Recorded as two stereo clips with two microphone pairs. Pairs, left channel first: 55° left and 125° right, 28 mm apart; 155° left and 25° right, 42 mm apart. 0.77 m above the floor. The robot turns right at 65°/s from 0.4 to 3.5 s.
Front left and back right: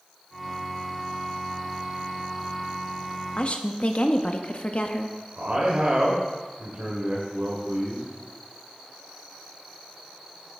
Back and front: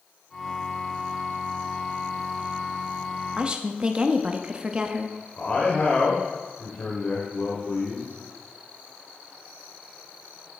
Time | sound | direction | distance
3.4 | a woman speaking | 25° left | 0.7 m
5.4 | a man speaking | 150° right | 2.5 m